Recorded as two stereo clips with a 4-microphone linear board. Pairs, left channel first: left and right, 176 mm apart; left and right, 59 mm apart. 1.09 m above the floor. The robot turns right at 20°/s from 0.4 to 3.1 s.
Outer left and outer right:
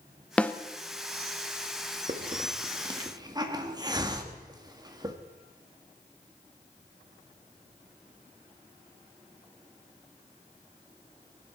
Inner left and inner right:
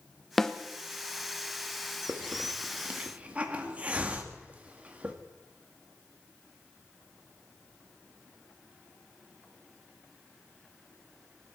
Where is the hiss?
45° right (ahead or behind), 1.7 m; by 5.2 s 25° right (ahead or behind), 1.7 m.